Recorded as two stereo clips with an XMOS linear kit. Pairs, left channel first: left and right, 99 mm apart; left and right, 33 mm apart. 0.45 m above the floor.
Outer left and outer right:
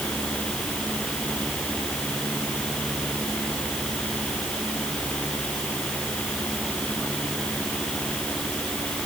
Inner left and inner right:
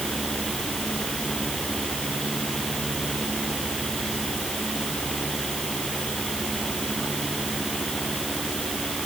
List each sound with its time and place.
Only background noise.